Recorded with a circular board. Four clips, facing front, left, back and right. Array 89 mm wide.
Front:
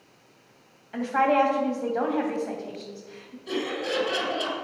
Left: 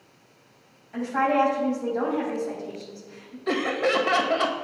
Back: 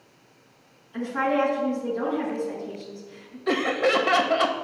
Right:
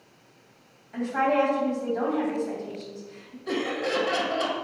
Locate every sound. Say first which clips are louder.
0.9 s a woman speaking: left 1 dB, front 3 dB; 5° left, 3.5 m
3.5 s laughter: left 4 dB, back 7 dB; 150° left, 1.8 m